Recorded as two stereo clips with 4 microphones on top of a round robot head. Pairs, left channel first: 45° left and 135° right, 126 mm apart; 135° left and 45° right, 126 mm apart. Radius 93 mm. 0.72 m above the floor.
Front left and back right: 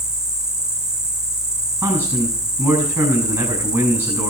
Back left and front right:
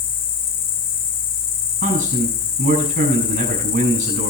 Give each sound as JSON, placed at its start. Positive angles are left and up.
{"t": 0.0, "sound": "an insect", "azimuth_deg": 135, "distance_m": 1.4}
{"t": 1.8, "sound": "a man speaking", "azimuth_deg": -70, "distance_m": 6.5}